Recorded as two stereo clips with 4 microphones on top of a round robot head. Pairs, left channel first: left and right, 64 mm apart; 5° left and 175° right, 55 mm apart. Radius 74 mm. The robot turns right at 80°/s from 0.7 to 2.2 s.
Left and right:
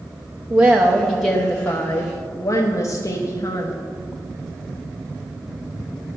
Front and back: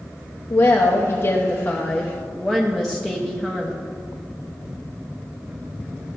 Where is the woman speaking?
35° right, 1.0 m; by 3.8 s 85° left, 1.0 m.